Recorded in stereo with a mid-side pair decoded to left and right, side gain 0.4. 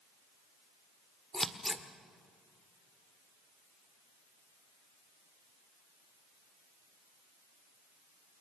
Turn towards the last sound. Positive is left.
turn(degrees=5)